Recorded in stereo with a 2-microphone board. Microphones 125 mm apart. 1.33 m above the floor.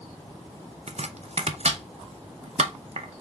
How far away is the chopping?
About 0.7 m.